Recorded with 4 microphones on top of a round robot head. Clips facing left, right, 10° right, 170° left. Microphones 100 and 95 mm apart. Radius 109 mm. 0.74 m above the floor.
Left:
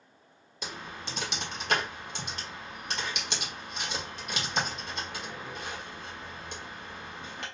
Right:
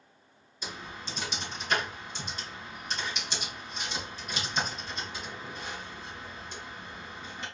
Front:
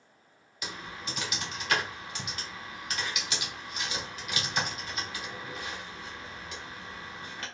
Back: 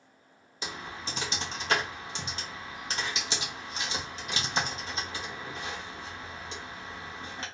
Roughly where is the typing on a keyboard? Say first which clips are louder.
Left 1 dB, back 1 dB; left.